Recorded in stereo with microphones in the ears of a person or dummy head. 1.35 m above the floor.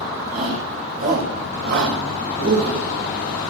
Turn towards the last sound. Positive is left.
turn(degrees=-75)  # may be behind; listen again after turning